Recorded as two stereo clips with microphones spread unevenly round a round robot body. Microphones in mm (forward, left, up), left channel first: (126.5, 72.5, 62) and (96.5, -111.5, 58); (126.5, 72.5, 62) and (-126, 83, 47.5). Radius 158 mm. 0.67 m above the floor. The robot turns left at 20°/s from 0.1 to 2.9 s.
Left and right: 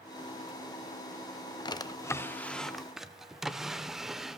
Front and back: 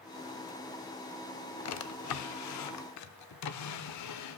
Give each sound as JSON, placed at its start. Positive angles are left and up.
{"t": 1.6, "sound": "a drawer", "azimuth_deg": 15, "distance_m": 0.5}